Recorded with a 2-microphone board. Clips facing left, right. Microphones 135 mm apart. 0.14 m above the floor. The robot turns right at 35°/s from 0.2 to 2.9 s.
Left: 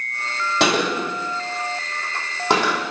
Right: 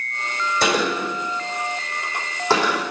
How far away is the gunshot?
About 3 m.